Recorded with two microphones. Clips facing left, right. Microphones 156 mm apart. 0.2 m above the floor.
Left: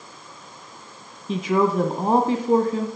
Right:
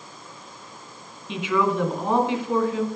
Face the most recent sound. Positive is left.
turn(degrees=40)  # may be behind; listen again after turning